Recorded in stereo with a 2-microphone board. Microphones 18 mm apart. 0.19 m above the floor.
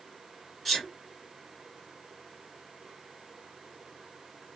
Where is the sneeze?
15° left (ahead or behind), 1.9 m.